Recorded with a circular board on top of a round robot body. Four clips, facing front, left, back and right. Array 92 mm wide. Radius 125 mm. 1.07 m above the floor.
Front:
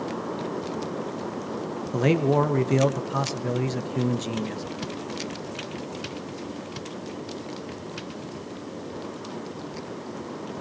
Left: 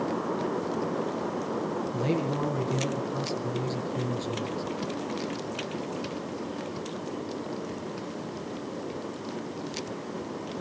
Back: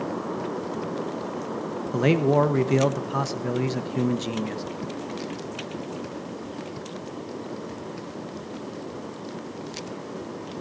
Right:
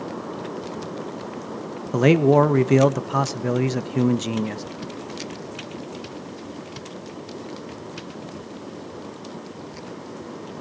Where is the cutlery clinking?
No cutlery clinking in this recording.